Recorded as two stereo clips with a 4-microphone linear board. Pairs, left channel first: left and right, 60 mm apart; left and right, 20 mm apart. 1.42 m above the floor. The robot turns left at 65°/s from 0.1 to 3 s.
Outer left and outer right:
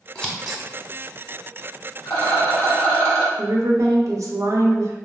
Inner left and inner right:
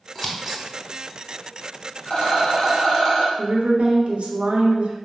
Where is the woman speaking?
65° right (ahead or behind), 0.6 m.